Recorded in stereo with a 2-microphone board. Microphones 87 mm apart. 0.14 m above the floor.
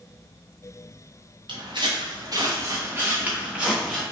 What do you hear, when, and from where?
1.5 s footsteps: 75° right (ahead or behind), 0.9 m; by 4.0 s centre (ahead or behind), 1.2 m